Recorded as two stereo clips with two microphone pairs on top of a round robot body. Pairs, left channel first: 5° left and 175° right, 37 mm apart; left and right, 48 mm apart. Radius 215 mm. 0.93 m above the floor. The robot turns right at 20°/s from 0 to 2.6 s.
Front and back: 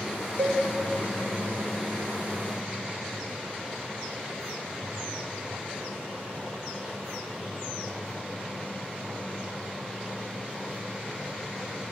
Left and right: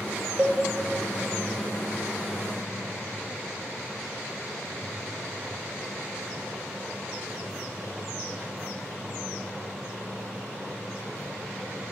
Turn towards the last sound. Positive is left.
turn(degrees=-105)